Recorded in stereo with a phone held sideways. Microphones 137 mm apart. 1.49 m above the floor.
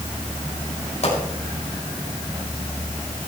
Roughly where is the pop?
Left.